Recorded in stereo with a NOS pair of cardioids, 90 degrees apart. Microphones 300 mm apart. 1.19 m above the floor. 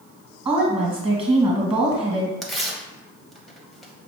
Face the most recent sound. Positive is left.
turn(degrees=0)